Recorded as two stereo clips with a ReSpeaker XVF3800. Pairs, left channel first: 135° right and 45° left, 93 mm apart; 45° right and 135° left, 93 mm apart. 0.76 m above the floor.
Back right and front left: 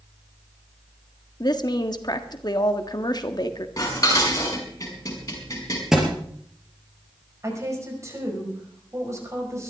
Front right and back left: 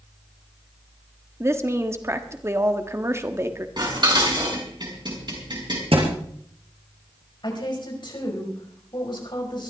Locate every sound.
1.4 s a woman speaking: 170° right, 1.4 m
3.8 s dishes clattering: 175° left, 4.5 m
5.9 s a thud: 130° left, 4.5 m
7.4 s a woman speaking: 10° right, 5 m